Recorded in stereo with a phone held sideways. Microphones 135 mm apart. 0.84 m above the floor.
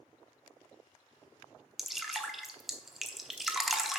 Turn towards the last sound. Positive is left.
turn(degrees=0)  # may be behind; listen again after turning